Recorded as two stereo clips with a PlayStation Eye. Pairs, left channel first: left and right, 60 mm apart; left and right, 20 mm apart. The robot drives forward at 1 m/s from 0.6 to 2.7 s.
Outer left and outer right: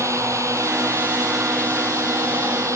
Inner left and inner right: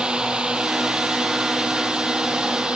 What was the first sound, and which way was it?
A drone, 55° right (ahead or behind).